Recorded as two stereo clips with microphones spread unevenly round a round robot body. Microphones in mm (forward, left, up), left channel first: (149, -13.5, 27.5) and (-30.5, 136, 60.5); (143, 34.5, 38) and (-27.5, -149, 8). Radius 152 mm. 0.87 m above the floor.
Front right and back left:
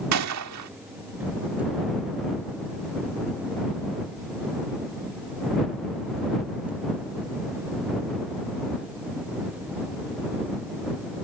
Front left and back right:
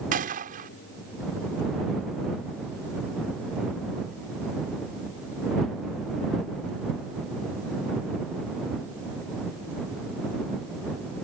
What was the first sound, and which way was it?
A gunshot, 165° left.